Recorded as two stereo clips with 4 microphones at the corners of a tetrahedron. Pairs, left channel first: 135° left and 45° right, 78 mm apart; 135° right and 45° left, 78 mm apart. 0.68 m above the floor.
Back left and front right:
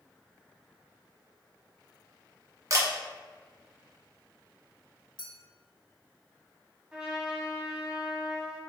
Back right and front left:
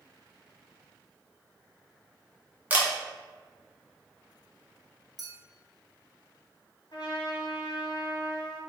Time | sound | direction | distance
2.7 | a camera shutter | 20° right | 1.0 m
5.2 | a clink | 135° left | 1.1 m
6.9 | a trumpet | 120° right | 1.1 m